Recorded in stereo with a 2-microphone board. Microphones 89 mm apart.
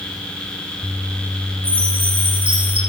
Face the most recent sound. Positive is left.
turn(degrees=-85)